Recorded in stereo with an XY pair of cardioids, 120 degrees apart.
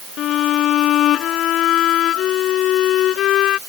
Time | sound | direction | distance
0.2 | a violin | 70° left | ?